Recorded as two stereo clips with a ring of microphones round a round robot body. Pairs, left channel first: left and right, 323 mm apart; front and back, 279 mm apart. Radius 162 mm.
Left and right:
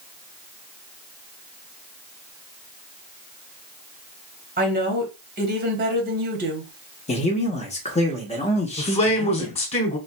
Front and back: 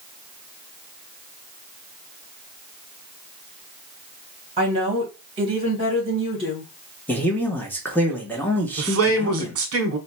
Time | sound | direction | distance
4.6 | a woman speaking | 125° right | 1.1 m
7.1 | a man speaking | 70° left | 1.0 m
8.8 | a man speaking | 160° left | 1.2 m